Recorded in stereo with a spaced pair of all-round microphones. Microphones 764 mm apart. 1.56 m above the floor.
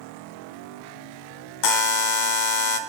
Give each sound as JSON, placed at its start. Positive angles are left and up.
{"t": 1.6, "sound": "a buzzer", "side_deg": 70, "distance_m": 0.7}